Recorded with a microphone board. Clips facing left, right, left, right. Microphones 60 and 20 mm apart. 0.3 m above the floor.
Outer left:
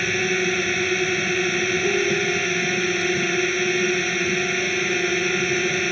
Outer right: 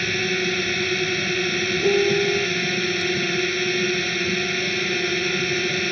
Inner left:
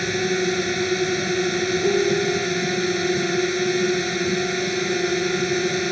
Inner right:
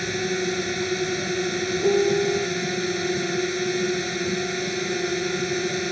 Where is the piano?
25° right (ahead or behind).